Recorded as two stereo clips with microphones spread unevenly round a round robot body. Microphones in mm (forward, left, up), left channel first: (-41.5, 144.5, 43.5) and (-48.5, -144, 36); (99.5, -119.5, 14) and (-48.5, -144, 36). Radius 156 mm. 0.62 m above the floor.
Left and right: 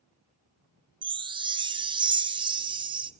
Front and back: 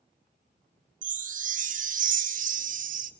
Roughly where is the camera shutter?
No camera shutter in this recording.